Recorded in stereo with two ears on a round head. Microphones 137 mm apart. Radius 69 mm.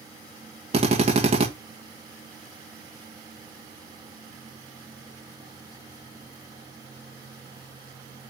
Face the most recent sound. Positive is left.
turn(degrees=-40)  # may be behind; listen again after turning